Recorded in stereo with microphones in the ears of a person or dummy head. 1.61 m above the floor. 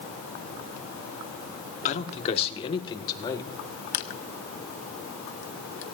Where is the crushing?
40° left (ahead or behind), 0.6 m.